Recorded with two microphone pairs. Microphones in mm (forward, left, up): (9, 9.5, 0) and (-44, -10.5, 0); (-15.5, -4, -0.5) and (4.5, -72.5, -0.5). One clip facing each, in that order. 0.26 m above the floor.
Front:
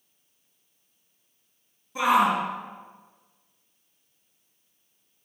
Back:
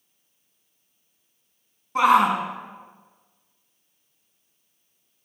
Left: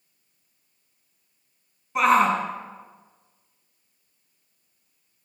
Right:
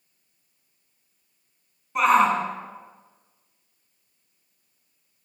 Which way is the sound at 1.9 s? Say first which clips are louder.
Back 4 dB, even; 165° right.